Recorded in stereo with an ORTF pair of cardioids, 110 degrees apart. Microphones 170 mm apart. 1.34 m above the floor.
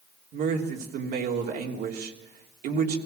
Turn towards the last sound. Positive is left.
turn(degrees=-70)